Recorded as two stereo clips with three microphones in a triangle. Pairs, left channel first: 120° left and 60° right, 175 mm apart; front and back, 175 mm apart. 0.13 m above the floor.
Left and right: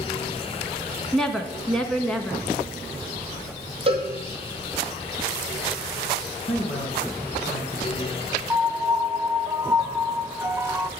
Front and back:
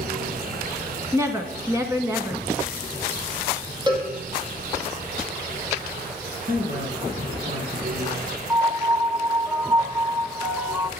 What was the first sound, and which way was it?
A woman speaking, 155° right.